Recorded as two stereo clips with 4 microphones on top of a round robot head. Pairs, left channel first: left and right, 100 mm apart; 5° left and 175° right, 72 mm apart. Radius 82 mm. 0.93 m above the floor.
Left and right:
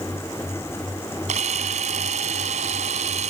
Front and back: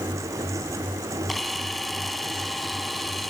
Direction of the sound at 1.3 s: 85° right.